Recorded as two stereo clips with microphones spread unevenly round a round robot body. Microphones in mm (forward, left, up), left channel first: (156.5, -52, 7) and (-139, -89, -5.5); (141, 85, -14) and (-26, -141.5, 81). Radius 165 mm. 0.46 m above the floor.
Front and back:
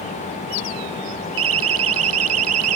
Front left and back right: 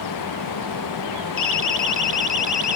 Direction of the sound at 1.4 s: 135° left.